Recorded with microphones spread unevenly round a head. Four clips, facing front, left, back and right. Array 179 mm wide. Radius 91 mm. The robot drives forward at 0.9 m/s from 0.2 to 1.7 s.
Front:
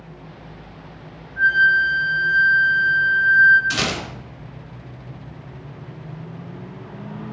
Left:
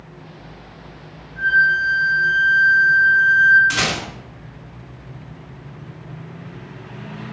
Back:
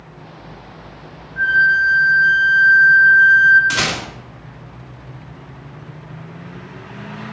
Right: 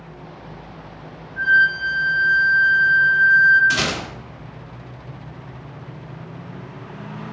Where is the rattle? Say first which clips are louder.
Even, back 3 dB; 175° right, 2.5 m.